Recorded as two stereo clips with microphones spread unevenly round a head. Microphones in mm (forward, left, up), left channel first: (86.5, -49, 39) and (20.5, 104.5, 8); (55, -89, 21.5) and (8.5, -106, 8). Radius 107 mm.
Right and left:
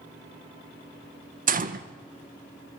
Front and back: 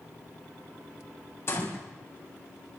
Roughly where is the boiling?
I don't hear boiling.